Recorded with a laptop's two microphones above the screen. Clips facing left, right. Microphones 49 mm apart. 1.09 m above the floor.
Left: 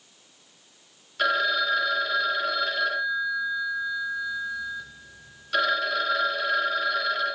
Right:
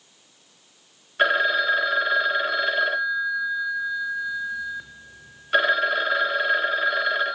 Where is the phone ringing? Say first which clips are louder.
Right 3 dB; 30° right (ahead or behind), 0.6 m.